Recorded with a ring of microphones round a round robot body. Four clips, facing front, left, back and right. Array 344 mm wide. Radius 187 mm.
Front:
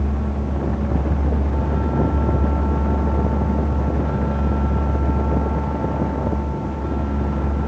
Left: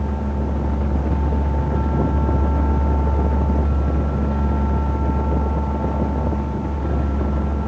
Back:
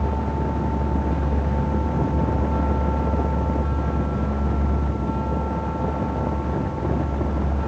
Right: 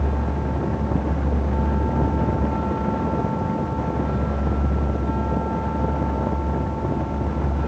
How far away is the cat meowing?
I don't hear a cat meowing.